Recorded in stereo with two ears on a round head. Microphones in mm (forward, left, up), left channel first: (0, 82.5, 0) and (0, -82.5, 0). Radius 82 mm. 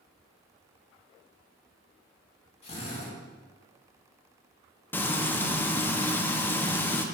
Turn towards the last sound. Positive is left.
turn(degrees=10)  # may be behind; listen again after turning